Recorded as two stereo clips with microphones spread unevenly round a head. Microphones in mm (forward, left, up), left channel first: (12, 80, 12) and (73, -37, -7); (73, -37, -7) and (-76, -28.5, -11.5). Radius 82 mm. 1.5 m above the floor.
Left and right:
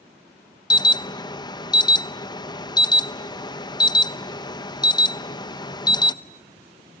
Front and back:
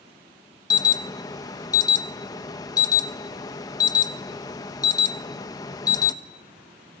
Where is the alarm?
65° left, 1.1 m.